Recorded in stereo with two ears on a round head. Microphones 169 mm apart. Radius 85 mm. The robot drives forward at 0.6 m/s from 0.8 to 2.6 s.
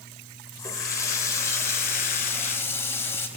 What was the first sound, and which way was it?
A running tap, 20° left (ahead or behind).